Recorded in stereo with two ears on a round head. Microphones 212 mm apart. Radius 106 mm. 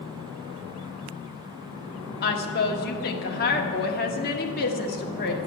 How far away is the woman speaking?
About 1.3 m.